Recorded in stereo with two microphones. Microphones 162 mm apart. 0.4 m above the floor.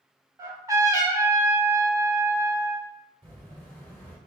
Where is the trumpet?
20° right (ahead or behind), 1.0 m.